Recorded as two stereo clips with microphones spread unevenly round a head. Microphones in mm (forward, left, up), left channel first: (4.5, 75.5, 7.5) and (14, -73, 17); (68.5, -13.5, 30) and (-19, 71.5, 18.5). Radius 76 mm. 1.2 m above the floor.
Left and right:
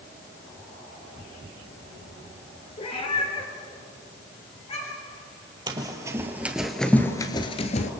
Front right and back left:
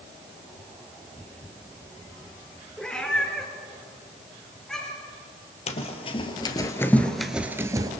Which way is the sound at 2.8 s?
40° left.